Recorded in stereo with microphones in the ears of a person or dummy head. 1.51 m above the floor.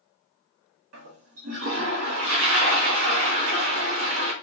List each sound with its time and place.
0.9 s a toilet flushing: 60° right (ahead or behind), 1.2 m